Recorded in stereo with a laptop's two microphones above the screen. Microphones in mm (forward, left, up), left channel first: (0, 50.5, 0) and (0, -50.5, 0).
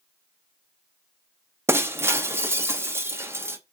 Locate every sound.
1.7 s breaking glass: 25° right (ahead or behind), 0.6 m